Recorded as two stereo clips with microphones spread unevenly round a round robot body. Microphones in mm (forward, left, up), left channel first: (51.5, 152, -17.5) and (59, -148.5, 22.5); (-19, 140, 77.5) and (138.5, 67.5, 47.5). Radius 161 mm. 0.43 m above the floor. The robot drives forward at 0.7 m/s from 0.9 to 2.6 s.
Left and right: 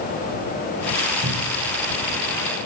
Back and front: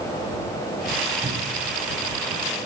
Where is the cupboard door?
35° right, 1.9 m; by 1.7 s 45° right, 1.7 m.